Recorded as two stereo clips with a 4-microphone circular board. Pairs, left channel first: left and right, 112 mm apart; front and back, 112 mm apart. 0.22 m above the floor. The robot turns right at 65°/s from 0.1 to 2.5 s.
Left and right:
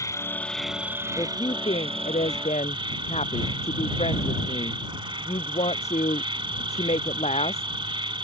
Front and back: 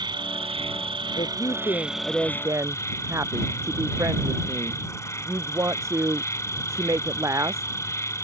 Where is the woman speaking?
30° left; by 7.7 s 115° left.